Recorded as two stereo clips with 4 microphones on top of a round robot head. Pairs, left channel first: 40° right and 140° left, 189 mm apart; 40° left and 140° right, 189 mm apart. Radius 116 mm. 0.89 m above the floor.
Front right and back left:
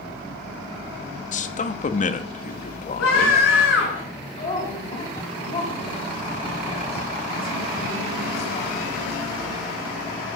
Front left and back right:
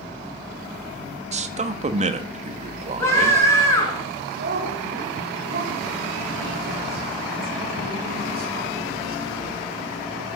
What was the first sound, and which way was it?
A man speaking, 90° right.